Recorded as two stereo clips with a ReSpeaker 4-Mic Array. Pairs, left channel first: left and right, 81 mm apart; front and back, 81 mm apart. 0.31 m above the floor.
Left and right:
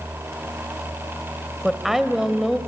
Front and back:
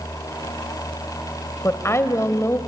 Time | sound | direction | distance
1.6 | a woman speaking | 5° right | 1.4 m